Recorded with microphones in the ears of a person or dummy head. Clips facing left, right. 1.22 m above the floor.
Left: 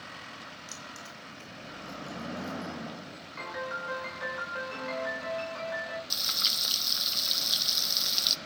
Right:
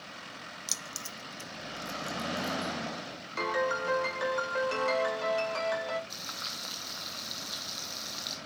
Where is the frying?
40° left (ahead or behind), 0.7 m.